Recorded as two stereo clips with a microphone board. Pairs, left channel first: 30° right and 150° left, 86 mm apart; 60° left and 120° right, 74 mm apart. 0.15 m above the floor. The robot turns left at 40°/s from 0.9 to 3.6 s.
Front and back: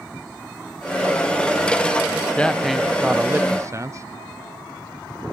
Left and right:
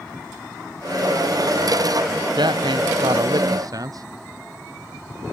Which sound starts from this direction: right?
A man speaking, at 2.4 s.